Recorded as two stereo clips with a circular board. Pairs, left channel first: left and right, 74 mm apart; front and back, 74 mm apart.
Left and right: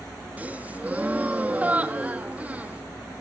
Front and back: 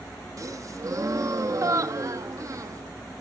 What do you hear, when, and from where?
0.4 s a gasp: 155° right, 1.2 m